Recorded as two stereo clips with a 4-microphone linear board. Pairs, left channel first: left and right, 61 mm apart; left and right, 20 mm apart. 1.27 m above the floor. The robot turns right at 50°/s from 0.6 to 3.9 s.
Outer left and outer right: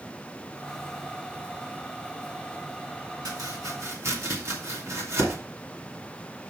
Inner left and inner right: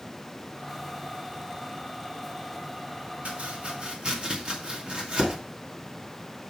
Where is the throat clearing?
No throat clearing in this recording.